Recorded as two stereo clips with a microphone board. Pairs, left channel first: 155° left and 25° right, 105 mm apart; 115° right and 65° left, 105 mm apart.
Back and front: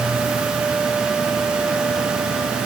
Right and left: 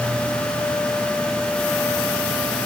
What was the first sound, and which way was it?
Only background noise.